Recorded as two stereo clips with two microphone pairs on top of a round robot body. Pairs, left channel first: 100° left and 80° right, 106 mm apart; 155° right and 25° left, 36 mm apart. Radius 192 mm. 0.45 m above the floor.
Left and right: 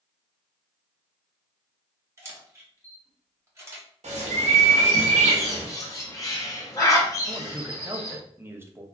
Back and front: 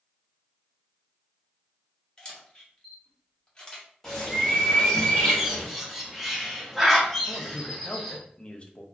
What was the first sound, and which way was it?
A camera shutter, 115° right.